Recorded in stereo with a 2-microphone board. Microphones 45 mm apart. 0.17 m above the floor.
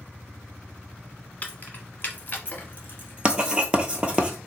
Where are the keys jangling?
35° left (ahead or behind), 1.0 m; by 4.2 s 40° left (ahead or behind), 1.8 m.